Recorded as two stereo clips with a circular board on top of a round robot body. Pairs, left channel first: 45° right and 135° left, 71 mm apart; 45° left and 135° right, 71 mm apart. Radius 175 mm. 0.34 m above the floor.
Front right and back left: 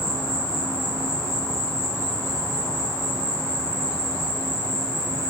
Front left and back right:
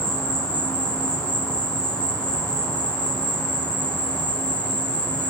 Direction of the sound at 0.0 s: 110° left.